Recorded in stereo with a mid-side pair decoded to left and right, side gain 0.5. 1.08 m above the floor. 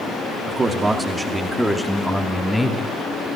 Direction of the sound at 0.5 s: 30° right.